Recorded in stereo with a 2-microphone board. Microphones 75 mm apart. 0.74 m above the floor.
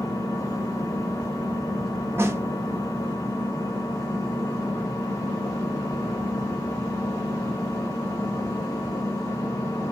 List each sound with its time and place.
0.0 s an engine running: 50° left (ahead or behind), 0.9 m
2.2 s a snare drum: 35° right (ahead or behind), 0.6 m